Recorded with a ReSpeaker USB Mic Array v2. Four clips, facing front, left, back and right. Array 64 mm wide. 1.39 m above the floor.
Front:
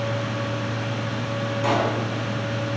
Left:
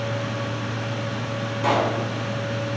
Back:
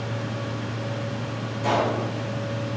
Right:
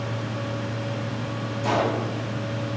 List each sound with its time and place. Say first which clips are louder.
1.6 s a pop: left 2 dB, even; 60° left, 3 m